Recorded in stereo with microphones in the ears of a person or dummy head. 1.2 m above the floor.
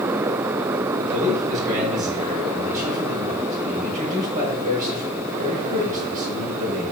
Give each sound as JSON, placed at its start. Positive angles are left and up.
{"t": 1.0, "sound": "a man speaking", "side_deg": -45, "distance_m": 5.5}